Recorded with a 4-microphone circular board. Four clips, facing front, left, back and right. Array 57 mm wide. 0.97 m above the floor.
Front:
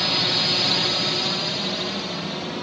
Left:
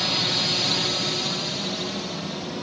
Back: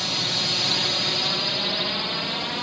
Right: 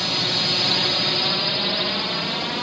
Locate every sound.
0.0 s a drone: 5° right; by 2.6 s 120° right